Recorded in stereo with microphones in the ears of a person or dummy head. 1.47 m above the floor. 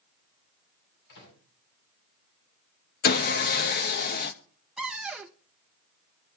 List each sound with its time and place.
1.1 s a microwave: 60° left (ahead or behind), 9.5 m
3.0 s sawing: 50° left (ahead or behind), 0.8 m
4.8 s a cupboard door: 5° right (ahead or behind), 1.0 m